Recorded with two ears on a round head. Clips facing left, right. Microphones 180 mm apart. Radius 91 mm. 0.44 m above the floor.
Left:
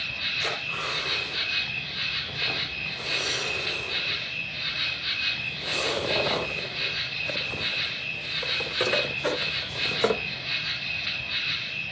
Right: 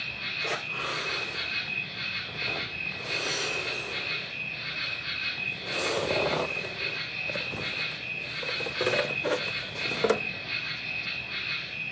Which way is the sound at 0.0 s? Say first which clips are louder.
Left 2 dB; 55° left (ahead or behind).